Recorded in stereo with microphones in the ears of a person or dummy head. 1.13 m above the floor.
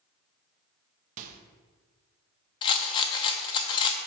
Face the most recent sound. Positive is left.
turn(degrees=25)  # may be behind; listen again after turning